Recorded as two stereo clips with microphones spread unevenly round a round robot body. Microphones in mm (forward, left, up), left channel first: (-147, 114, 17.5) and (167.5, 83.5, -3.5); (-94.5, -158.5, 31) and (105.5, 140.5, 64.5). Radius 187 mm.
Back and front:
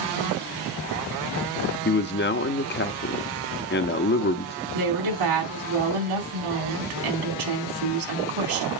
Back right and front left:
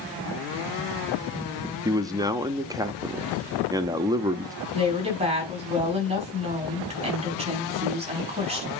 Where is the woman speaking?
20° right, 4.5 m.